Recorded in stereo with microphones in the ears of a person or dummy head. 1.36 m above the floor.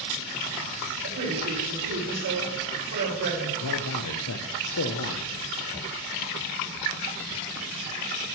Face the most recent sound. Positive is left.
turn(degrees=80)